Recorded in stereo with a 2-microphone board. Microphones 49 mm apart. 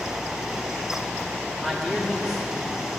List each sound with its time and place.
1.6 s a man speaking: 5° left (ahead or behind), 1.9 m